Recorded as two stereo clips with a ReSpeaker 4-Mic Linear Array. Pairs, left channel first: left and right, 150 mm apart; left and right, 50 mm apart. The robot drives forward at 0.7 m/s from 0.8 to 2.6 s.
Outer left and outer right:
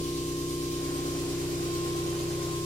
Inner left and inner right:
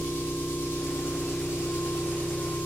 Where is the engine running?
50° left (ahead or behind), 0.9 m; by 2.7 s 35° left (ahead or behind), 1.1 m.